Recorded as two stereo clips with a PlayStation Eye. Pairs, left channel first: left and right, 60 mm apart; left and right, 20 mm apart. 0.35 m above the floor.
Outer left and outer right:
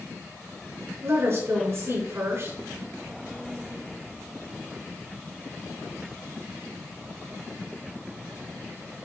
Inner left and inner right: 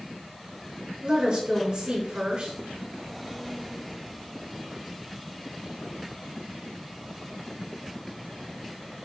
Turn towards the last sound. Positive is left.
turn(degrees=-55)  # may be behind; listen again after turning